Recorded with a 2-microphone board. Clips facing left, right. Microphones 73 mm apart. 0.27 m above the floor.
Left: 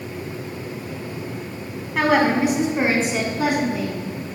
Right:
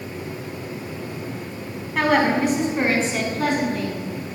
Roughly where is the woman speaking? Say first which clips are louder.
Left 1 dB; centre.